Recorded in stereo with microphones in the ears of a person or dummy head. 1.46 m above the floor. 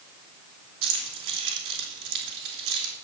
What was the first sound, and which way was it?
Keys jangling, 70° right (ahead or behind).